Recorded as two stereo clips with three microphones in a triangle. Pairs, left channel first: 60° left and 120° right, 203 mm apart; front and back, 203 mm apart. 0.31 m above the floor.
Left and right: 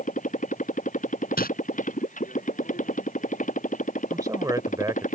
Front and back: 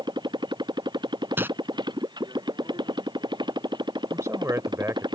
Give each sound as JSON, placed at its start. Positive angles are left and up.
{"t": 0.0, "sound": "a motorcycle", "azimuth_deg": 110}
{"t": 1.4, "sound": "crumpling", "azimuth_deg": 100}
{"t": 4.1, "sound": "a man speaking", "azimuth_deg": -140}